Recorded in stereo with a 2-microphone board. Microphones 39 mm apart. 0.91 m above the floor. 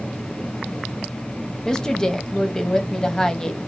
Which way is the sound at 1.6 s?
15° left (ahead or behind).